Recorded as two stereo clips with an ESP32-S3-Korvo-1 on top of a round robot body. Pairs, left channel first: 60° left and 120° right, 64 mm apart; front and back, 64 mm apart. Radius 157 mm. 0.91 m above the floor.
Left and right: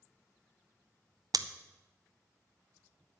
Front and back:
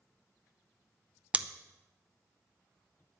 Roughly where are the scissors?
Right.